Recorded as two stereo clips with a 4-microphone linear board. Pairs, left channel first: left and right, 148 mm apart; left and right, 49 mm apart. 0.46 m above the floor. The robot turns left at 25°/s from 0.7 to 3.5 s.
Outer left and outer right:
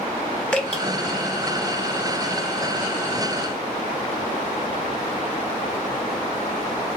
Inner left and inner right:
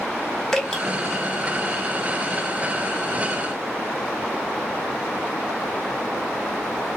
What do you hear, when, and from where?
0.5 s dripping: 10° left (ahead or behind), 1.3 m